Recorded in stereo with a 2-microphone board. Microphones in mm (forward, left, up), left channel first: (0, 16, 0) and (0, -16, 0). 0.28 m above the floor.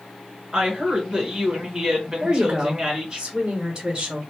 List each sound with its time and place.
0.5 s a woman speaking: 20° right (ahead or behind), 1.3 m
2.2 s a woman speaking: 20° right (ahead or behind), 1.0 m